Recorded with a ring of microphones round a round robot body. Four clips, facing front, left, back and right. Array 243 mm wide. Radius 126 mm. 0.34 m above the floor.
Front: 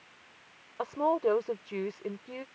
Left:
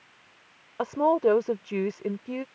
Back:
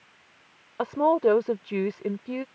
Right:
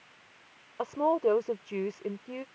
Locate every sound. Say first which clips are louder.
0.8 s a woman speaking: left 4 dB, back 6 dB; 150° left